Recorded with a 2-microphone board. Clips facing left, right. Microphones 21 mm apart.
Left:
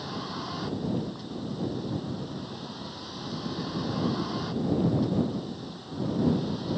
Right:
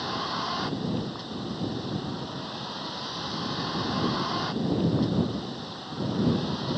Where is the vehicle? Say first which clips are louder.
Right 5 dB; 25° right (ahead or behind).